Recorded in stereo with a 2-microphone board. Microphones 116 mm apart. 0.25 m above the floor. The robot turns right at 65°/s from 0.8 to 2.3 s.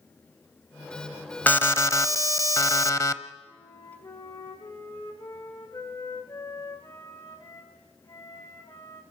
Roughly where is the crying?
I don't hear crying.